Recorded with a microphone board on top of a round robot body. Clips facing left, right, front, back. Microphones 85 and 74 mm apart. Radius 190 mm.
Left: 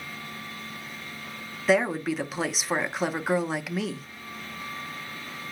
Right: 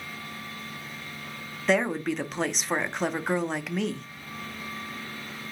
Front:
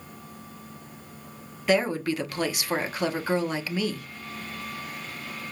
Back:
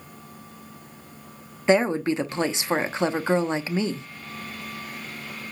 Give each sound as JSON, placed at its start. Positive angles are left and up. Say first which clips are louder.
{"t": 1.7, "sound": "a woman speaking", "louder": "left 2 dB, back 4 dB", "azimuth_deg": 170, "distance_m": 0.8}